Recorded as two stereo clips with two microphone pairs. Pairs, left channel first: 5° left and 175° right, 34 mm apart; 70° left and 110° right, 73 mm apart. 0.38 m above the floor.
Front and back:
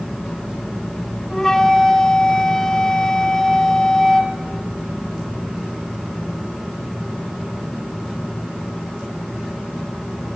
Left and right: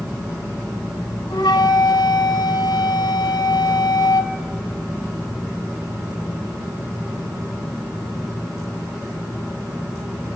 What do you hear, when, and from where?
1.3 s a flute: 80° left, 1.4 m